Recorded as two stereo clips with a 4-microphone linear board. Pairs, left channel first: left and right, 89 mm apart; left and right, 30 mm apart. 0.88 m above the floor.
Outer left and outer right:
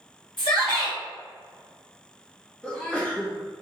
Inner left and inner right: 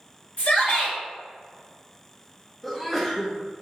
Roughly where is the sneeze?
Centre.